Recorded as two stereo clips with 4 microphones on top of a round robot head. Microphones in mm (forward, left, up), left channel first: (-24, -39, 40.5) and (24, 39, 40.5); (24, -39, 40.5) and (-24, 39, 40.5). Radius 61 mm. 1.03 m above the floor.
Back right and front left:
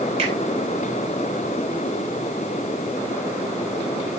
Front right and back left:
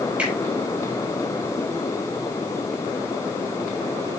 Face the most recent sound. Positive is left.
turn(degrees=45)